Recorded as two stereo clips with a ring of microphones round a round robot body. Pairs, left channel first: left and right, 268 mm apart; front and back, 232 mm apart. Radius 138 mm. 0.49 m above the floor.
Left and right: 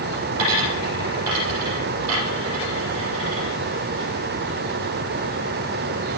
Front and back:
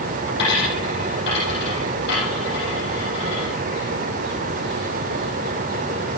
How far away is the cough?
I don't hear a cough.